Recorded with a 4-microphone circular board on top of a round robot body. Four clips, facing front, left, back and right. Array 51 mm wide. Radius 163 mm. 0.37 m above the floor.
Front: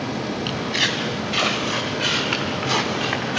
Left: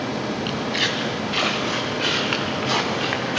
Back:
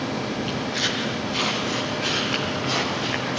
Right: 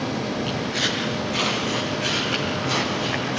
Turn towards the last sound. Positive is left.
turn(degrees=60)